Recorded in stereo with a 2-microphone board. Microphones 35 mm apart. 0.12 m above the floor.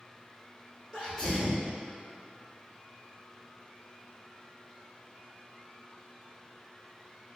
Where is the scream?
I don't hear a scream.